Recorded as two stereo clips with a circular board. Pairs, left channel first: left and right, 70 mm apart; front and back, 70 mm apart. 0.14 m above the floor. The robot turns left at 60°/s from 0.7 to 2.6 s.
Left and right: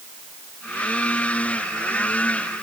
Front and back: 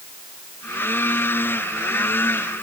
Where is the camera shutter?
No camera shutter in this recording.